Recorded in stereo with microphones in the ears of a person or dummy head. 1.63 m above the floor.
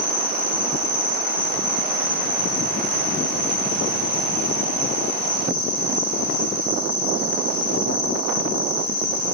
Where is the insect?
45° left (ahead or behind), 1.6 m.